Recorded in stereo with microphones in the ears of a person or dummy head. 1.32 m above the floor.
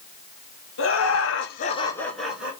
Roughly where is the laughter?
Left.